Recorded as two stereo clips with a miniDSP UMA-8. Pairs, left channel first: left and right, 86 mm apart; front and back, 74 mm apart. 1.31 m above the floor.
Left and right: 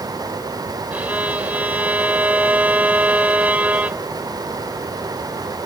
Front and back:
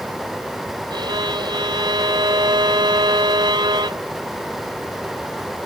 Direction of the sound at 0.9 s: 165° right.